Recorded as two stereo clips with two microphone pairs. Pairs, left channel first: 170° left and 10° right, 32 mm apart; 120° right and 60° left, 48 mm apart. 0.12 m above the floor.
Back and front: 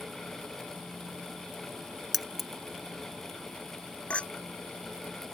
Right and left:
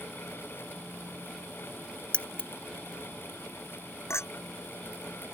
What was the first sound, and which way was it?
Keys jangling, 110° right.